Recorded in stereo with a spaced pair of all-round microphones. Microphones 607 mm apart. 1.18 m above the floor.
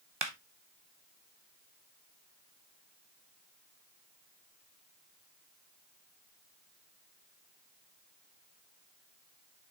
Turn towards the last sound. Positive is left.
turn(degrees=-45)  # may be behind; listen again after turning